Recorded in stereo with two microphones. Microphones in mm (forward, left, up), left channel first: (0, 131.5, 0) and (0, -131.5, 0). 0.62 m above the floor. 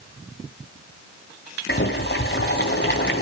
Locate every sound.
1.7 s boiling: 45° left (ahead or behind), 2.5 m